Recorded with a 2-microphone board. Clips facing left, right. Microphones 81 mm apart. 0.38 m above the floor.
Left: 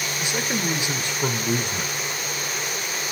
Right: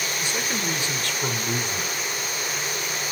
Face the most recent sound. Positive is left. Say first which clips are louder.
# left 4 dB
turn(degrees=20)  # may be behind; listen again after turning